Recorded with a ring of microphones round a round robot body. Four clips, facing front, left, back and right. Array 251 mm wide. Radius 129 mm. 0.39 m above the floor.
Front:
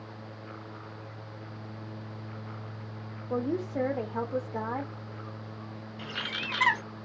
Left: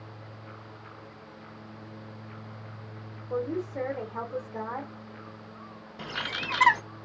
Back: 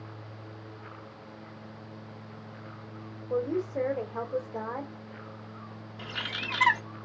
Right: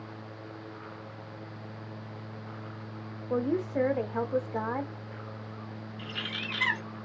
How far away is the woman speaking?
About 1.3 m.